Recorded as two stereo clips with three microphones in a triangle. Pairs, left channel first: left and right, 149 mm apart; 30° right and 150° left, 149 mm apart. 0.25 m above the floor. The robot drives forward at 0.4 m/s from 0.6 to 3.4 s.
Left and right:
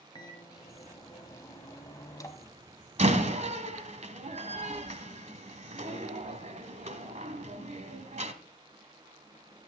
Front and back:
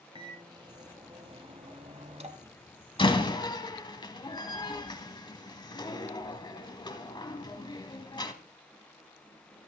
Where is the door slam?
75° right, 1.6 m; by 8.3 s 80° right, 1.6 m.